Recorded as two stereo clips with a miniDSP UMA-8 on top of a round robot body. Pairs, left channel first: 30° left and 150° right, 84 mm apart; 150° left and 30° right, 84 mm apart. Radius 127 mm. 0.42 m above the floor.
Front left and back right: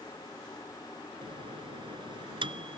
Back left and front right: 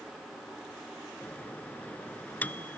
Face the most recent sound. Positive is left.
turn(degrees=-140)